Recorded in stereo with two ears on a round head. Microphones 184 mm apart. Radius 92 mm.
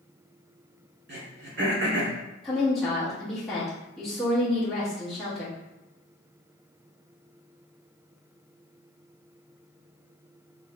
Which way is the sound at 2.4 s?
Centre (ahead or behind).